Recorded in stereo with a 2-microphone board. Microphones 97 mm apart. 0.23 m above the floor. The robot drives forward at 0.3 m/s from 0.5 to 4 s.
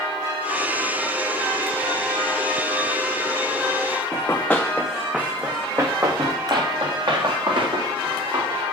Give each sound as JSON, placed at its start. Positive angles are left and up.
{"t": 4.1, "sound": "running footsteps", "side_deg": 25, "distance_m": 1.1}